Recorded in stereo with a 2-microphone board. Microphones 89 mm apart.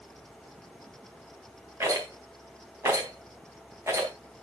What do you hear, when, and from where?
1.8 s a rattle: 30° right (ahead or behind), 3.5 m